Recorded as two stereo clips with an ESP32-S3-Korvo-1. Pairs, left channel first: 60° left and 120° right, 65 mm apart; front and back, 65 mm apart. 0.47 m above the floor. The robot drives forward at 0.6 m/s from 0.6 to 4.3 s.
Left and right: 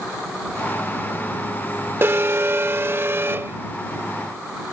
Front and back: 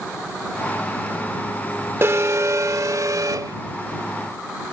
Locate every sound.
2.0 s an alarm: 155° right; by 3.6 s 170° right